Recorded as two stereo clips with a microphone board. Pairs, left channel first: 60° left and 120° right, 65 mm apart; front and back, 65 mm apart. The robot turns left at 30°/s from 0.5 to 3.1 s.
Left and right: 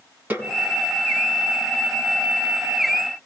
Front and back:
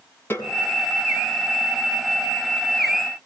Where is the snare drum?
55° right, 5.5 m.